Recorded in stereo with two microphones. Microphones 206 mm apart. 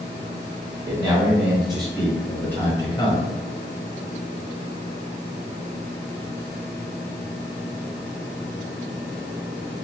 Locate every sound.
0.8 s a man speaking: 15° right (ahead or behind), 1.9 m; by 3.2 s 25° left (ahead or behind), 1.4 m